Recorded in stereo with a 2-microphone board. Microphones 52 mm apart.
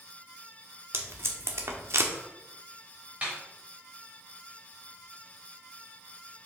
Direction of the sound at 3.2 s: 25° right (ahead or behind).